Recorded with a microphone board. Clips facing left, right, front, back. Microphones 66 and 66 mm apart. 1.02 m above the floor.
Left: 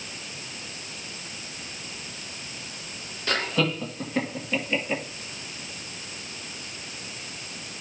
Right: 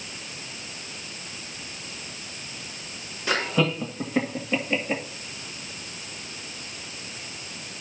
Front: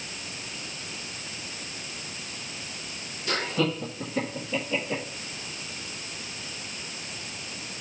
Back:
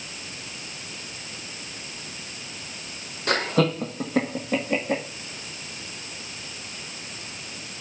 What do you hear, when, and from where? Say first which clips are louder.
3.3 s laughter: right 2 dB, back 5 dB; 170° right, 1.2 m; by 5.0 s 165° right, 2.5 m